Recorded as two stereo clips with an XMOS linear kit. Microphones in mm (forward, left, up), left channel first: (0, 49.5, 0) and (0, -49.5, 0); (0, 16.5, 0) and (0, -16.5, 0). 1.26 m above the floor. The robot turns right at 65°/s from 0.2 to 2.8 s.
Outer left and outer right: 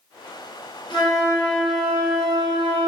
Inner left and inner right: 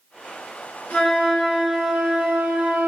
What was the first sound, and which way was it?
A flute, 125° left.